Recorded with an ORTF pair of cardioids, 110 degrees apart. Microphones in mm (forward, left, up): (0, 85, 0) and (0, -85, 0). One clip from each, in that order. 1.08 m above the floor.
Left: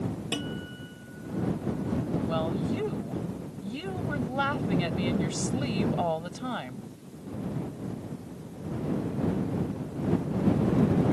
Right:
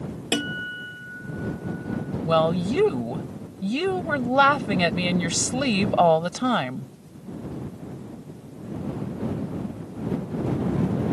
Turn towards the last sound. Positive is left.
turn(degrees=-65)